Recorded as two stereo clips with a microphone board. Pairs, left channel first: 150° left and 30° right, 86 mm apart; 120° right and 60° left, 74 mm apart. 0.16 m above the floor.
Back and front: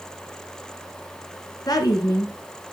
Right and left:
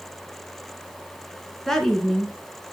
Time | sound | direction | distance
1.7 | a woman speaking | 155° left | 1.9 m